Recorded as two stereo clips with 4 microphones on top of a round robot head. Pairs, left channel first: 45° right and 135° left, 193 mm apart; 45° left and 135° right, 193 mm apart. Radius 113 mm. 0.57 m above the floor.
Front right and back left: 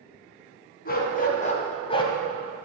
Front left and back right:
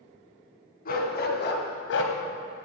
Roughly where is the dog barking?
Ahead.